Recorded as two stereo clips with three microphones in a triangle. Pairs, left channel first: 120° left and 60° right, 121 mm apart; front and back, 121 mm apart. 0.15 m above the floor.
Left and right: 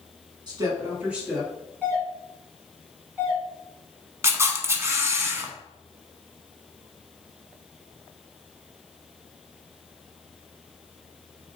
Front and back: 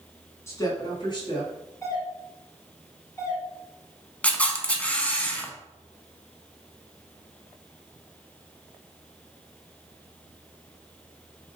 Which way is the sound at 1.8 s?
5° right.